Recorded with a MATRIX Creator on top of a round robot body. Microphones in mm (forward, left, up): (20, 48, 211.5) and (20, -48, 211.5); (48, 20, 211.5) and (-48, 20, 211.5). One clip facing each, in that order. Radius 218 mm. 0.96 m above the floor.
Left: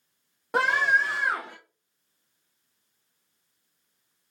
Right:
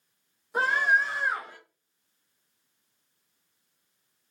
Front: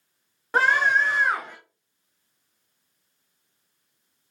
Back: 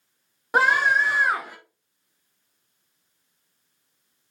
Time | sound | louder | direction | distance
0.5 | a scream | left 1 dB, back 1 dB | 105° left | 3.5 m